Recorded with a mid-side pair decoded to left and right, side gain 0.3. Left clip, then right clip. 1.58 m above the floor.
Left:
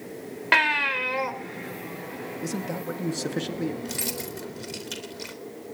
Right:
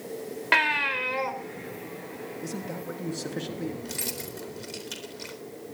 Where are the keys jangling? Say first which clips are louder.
Left 3 dB; 30° left, 4 m.